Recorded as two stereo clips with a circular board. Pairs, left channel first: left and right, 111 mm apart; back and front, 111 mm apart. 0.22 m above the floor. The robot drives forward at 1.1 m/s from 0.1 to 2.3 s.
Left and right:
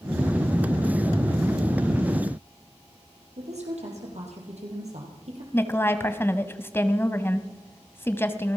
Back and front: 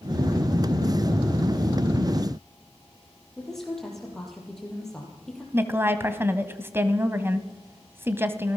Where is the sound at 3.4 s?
95° right, 7 m.